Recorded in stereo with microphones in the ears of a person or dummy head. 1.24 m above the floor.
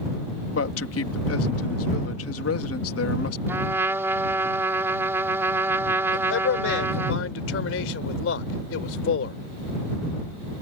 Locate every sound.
0.5 s a man speaking: 75° left (ahead or behind)
3.5 s a trumpet: 15° right (ahead or behind)
6.1 s a man speaking: 85° left